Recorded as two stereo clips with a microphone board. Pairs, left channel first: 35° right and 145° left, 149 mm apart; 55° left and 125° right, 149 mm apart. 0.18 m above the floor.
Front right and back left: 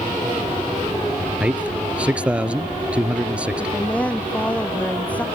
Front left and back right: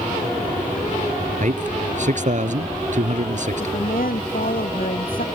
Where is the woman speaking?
45° left.